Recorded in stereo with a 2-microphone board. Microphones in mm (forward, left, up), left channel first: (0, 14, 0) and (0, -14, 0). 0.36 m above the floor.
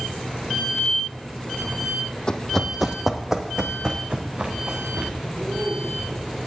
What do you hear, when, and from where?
2.3 s running footsteps: 30° left (ahead or behind), 0.7 m; by 5.1 s 40° right (ahead or behind), 2 m
5.2 s a man speaking: 55° right (ahead or behind), 5 m